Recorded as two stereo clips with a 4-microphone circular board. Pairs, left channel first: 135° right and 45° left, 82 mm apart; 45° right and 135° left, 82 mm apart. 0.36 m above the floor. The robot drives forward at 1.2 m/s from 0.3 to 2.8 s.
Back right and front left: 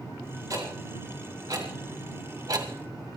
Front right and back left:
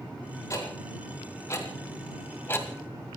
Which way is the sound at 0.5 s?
5° left.